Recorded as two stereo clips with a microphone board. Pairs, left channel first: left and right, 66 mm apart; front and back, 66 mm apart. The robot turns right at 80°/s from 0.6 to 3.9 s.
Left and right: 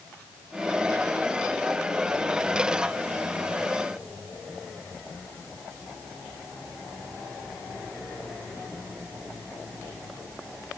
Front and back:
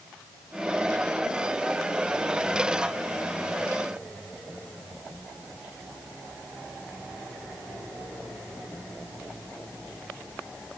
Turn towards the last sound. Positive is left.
No sound to turn to.